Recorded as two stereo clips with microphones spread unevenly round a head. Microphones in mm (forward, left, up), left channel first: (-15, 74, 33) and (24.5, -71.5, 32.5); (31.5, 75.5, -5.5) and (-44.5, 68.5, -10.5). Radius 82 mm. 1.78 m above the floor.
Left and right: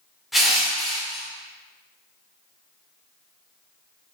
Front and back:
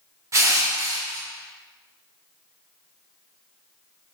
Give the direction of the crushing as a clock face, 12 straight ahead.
5 o'clock.